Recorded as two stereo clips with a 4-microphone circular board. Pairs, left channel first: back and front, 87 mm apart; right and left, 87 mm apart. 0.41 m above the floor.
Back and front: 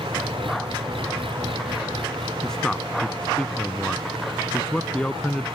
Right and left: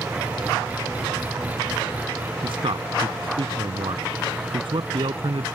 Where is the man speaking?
100° left.